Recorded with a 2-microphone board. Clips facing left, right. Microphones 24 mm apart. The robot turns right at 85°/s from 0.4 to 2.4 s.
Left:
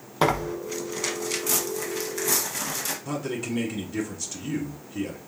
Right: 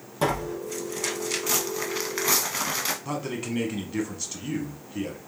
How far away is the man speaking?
About 1.2 m.